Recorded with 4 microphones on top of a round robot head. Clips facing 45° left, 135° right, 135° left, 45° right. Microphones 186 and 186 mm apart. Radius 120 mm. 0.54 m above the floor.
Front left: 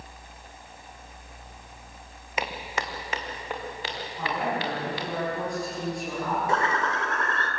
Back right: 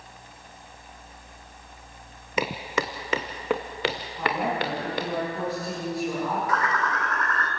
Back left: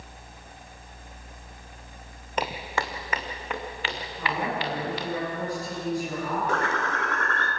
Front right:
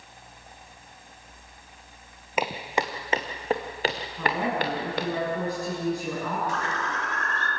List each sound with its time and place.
2.4 s footsteps: 125° right, 1.5 m; by 5.1 s 85° right, 3 m
4.2 s a woman speaking: 50° right, 7.5 m
6.5 s a bird: 105° left, 3 m